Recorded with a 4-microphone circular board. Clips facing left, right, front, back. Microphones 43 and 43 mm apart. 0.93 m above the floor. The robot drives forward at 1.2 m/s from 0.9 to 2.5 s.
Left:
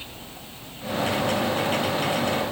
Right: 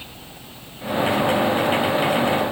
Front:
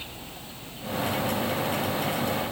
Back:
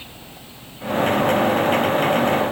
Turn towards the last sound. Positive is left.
No sound to turn to.